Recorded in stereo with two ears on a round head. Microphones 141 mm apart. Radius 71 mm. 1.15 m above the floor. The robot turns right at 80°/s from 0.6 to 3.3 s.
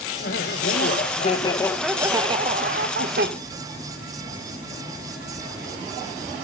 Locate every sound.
0.2 s laughter: 80° left, 1.2 m; by 3.3 s 65° right, 1.2 m